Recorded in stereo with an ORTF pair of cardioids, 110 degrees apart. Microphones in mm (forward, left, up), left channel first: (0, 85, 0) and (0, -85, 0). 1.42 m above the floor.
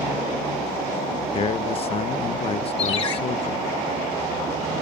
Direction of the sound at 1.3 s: 35° left.